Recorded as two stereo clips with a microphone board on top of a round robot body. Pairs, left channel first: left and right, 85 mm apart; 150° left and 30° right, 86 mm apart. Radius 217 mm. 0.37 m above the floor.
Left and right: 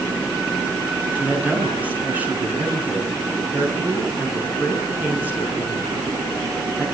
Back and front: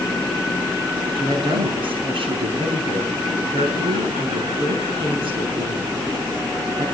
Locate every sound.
1.1 s a woman speaking: 20° right, 6.5 m